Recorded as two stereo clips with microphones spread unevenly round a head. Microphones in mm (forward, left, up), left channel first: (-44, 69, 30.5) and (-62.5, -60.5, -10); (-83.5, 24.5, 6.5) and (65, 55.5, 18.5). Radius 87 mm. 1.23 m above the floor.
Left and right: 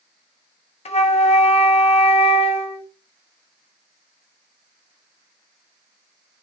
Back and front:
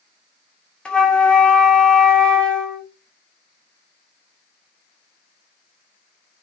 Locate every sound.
0.8 s a flute: 120° left, 0.6 m